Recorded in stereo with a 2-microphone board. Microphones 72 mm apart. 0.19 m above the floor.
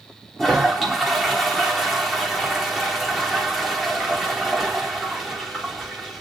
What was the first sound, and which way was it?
A toilet flushing, 5° left (ahead or behind).